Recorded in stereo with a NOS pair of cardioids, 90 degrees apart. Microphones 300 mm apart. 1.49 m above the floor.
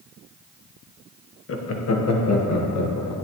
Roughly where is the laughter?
Ahead left.